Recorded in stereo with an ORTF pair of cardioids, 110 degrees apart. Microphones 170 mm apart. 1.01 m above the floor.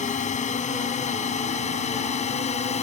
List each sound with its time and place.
0.0 s a drone: 45° left; by 2.8 s 40° left